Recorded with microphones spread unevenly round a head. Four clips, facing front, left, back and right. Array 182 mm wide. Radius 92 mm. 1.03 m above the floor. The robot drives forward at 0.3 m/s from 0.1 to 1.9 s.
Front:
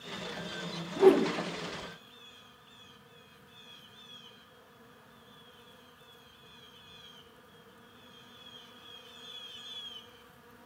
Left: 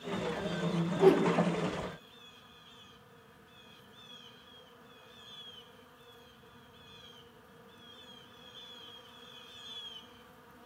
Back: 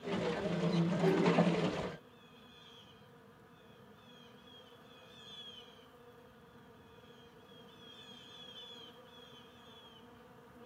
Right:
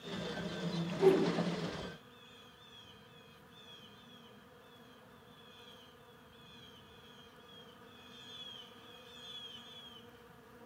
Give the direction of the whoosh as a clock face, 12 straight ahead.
11 o'clock.